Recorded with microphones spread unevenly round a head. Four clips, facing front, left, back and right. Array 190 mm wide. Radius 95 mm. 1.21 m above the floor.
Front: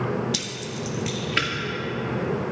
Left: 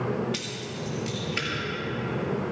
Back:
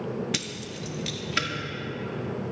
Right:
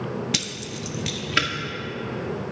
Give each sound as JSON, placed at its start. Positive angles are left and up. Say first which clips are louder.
{"t": 0.3, "sound": "keys jangling", "louder": "right 2 dB, front 3 dB", "azimuth_deg": -120, "distance_m": 1.5}